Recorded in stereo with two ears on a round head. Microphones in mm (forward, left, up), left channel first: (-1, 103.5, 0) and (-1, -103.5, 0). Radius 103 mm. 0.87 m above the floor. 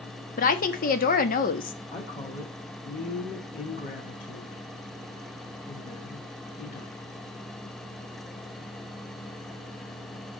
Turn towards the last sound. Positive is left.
turn(degrees=30)  # may be behind; listen again after turning